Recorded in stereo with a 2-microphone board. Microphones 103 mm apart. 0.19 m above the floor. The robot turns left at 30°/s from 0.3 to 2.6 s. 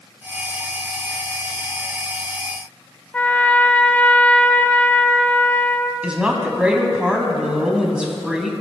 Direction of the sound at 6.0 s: 10° right (ahead or behind).